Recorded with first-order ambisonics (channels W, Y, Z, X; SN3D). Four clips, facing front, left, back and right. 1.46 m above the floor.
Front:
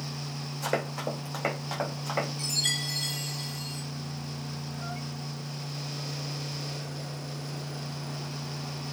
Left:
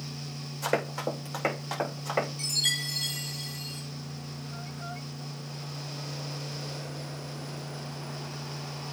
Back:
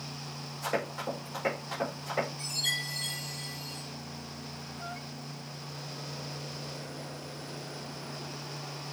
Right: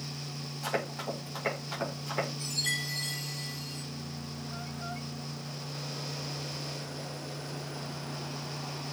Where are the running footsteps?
60° left, 5.5 m; by 2.3 s 55° left, 6 m.